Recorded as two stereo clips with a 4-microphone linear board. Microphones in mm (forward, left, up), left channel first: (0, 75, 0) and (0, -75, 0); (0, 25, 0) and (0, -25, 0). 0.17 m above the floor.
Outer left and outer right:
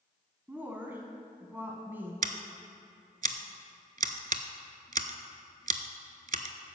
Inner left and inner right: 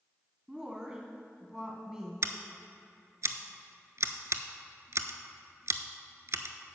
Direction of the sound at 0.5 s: 15° right (ahead or behind).